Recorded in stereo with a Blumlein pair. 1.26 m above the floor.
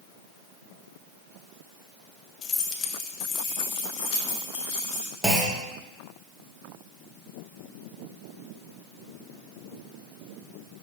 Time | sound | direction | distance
2.4 | keys jangling | 30° left | 0.8 m
5.2 | a clunk | straight ahead | 1.3 m